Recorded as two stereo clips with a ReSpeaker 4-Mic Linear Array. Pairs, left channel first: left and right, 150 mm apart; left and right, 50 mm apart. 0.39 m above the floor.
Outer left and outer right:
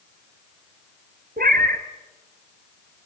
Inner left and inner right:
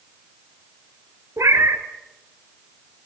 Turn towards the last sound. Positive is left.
turn(degrees=-85)